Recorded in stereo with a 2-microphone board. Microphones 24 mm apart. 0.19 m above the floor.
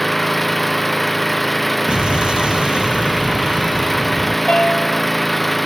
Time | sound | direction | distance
0.0 | an engine running | 10° left (ahead or behind) | ?
1.9 | an explosion | 40° right (ahead or behind) | ?
4.5 | a piano | 55° left (ahead or behind) | ?